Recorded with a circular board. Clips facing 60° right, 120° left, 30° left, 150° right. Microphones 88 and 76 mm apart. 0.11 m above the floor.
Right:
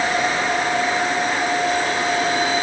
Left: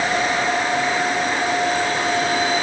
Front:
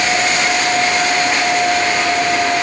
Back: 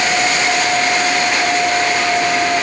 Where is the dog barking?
I don't hear a dog barking.